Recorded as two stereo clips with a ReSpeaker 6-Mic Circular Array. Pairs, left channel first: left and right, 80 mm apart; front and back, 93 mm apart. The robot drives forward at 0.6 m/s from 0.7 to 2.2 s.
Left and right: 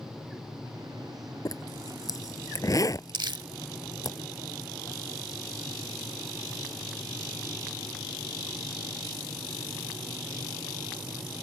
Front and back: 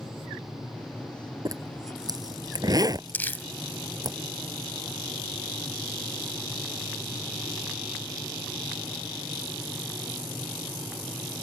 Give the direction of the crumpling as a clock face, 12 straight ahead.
2 o'clock.